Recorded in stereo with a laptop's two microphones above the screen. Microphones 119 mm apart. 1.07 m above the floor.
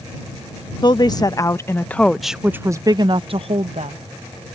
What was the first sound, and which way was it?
A woman speaking, 40° left (ahead or behind).